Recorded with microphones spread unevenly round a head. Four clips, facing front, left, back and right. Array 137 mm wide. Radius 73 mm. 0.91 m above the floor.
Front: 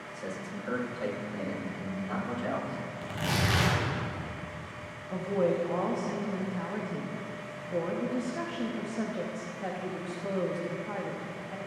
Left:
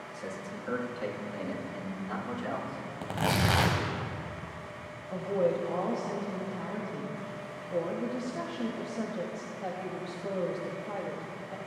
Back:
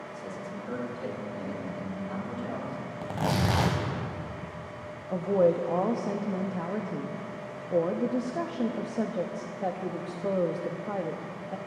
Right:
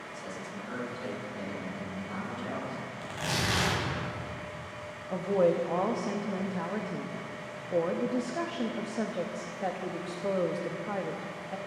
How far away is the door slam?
No door slam in this recording.